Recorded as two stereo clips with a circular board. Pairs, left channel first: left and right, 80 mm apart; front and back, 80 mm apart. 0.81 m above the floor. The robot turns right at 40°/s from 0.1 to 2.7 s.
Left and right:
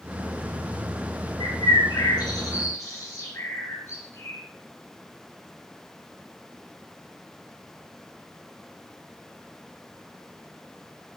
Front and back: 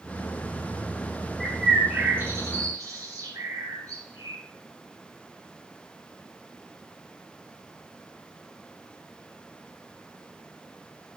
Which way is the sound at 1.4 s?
90° left.